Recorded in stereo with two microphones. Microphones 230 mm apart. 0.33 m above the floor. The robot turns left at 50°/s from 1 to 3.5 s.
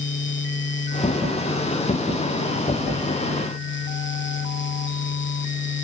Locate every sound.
Only background noise.